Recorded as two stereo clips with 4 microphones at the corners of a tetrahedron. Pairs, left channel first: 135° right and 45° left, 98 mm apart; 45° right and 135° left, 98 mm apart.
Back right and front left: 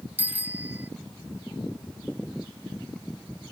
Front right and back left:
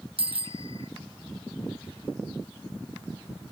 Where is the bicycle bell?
115° left.